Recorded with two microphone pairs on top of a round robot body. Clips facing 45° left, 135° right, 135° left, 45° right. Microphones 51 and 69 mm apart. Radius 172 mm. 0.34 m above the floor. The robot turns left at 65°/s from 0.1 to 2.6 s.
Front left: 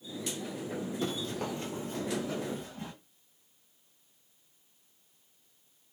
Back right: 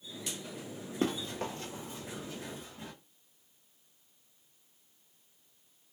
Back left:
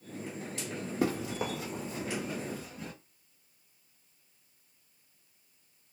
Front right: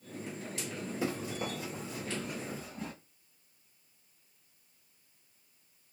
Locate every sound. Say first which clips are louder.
1.0 s running footsteps: back right 4 dB, back left 5 dB; straight behind, 0.7 m; by 2.9 s 5° left, 1.1 m